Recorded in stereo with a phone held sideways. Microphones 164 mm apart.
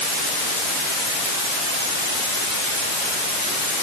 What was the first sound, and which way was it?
Only background noise.